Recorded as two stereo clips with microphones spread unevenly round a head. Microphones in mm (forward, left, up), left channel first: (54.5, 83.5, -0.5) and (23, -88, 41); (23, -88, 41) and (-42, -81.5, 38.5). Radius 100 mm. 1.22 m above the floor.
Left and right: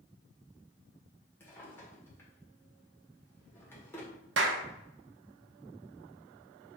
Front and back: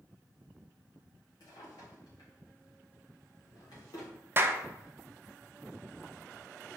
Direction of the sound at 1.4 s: 5° right.